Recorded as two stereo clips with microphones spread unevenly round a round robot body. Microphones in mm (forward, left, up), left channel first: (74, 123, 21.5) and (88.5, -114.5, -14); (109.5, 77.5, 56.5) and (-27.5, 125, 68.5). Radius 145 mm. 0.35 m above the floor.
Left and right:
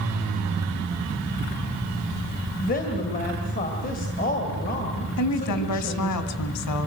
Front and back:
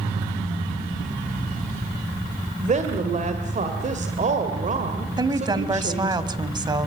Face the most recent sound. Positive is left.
turn(degrees=100)